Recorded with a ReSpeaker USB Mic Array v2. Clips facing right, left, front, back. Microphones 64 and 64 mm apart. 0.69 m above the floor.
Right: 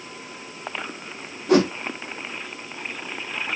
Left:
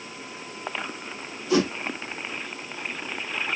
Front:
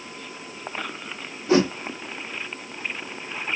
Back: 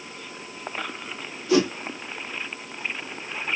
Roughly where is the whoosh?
Ahead right.